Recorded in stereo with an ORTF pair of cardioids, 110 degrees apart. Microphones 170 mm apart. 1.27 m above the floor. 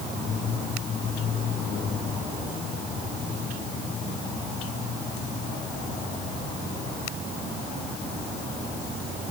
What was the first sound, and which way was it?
Only background noise.